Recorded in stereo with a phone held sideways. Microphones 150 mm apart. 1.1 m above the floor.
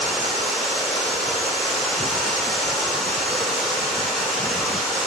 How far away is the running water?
About 1.3 m.